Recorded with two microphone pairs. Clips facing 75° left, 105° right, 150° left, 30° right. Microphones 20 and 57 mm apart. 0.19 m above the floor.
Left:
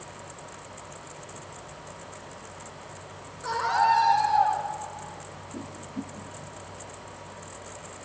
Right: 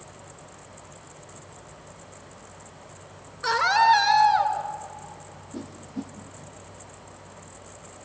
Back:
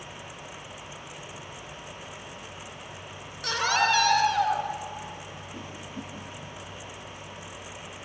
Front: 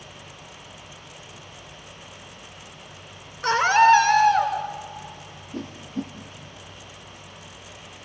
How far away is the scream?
About 3 m.